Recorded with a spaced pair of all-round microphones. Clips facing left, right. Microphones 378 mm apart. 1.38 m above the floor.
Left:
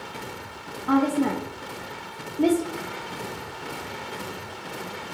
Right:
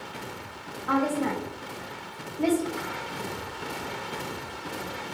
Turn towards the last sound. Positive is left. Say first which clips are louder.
# left 5 dB
turn(degrees=50)  # may be behind; listen again after turning